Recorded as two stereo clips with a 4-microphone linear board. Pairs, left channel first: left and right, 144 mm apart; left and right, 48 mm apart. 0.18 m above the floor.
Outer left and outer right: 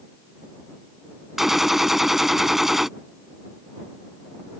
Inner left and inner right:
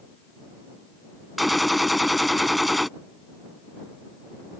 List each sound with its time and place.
1.4 s a gunshot: centre (ahead or behind)